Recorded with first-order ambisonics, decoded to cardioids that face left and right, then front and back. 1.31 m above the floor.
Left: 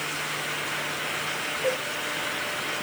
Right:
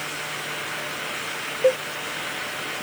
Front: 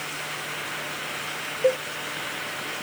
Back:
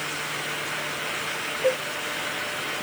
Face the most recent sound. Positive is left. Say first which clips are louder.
# right 8 dB, front 2 dB
turn(degrees=-60)